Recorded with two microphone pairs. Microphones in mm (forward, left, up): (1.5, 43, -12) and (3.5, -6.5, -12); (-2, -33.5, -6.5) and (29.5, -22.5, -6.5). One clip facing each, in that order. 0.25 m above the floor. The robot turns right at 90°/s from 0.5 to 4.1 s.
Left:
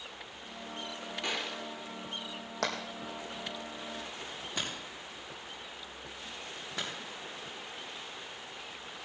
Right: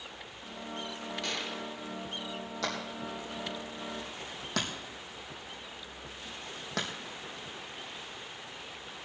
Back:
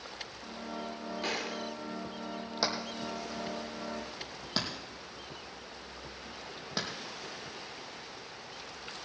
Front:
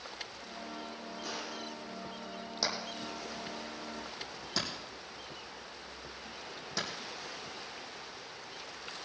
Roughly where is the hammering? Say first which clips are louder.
Left 2 dB, back 2 dB; behind left.